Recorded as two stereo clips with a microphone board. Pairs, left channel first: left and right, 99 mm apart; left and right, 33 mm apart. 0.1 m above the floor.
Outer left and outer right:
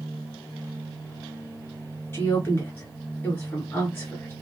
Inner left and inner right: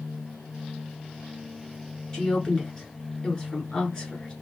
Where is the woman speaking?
20° left (ahead or behind), 1.6 m.